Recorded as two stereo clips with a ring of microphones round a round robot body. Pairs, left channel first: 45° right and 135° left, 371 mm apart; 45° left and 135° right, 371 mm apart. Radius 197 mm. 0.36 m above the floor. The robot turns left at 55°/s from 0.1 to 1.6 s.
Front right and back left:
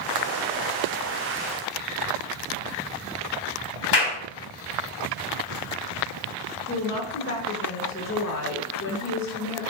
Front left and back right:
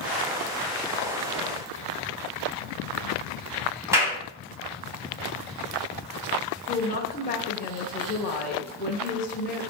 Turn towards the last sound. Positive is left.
turn(degrees=-10)